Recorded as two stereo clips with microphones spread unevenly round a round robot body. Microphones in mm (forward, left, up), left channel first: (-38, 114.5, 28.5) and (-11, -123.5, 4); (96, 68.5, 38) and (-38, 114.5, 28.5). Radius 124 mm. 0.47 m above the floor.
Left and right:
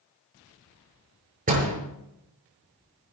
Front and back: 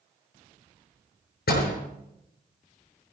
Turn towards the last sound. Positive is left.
turn(degrees=-25)